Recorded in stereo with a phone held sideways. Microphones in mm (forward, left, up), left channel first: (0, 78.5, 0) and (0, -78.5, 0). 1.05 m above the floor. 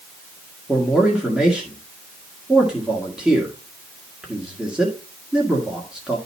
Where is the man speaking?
5° right (ahead or behind), 1.7 m.